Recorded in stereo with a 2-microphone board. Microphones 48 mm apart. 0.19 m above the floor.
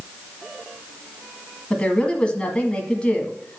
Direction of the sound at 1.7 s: 20° left (ahead or behind).